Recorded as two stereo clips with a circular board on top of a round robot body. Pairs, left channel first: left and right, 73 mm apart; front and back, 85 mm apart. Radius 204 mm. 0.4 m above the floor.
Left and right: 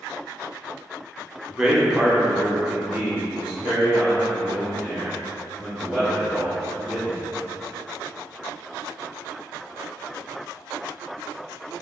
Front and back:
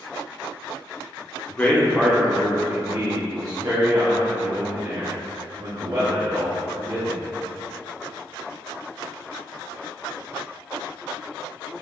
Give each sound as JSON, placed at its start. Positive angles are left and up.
{"t": 1.5, "sound": "a man speaking", "azimuth_deg": -15, "distance_m": 1.2}